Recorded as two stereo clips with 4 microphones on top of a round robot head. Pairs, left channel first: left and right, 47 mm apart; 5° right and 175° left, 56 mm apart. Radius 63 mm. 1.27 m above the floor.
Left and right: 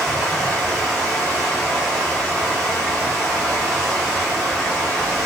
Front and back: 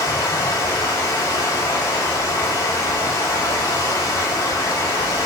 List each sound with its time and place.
0.0 s running water: straight ahead, 1.6 m